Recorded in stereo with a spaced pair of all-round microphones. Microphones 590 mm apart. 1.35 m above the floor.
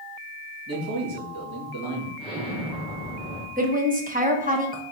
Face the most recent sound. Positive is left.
turn(degrees=-15)  # may be behind; listen again after turning